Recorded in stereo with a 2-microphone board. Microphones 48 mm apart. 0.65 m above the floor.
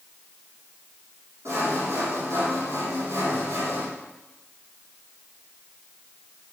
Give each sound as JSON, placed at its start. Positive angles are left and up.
{"t": 1.4, "sound": "sawing", "side_deg": -75, "distance_m": 7.0}